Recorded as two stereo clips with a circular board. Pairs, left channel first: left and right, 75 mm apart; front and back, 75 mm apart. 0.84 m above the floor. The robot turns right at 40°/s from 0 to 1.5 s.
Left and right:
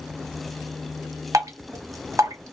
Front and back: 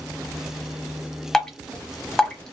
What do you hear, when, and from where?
1.3 s dripping: 80° right, 0.8 m; by 2.5 s 75° right, 0.8 m